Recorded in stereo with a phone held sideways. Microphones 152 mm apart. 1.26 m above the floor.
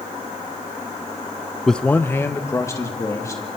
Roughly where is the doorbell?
No doorbell in this recording.